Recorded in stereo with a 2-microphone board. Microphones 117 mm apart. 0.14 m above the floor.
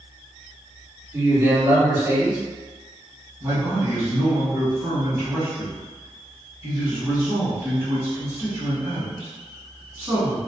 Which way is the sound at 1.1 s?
25° right (ahead or behind).